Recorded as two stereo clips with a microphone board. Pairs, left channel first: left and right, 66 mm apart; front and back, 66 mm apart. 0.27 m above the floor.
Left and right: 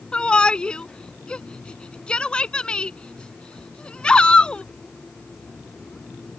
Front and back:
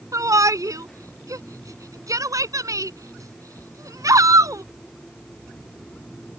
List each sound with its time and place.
0.1 s a shout: 165° left